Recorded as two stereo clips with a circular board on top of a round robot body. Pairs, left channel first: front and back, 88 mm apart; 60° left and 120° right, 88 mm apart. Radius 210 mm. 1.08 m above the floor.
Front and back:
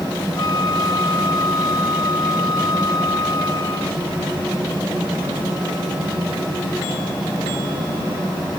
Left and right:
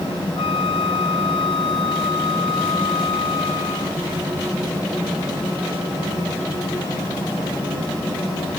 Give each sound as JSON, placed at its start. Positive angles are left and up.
{"t": 0.4, "sound": "a flute", "azimuth_deg": 45}